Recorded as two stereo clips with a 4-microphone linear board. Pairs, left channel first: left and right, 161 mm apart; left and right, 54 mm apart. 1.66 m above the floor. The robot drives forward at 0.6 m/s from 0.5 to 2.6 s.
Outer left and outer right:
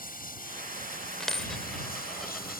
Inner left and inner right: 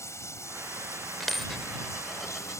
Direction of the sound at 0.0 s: 65° left (ahead or behind).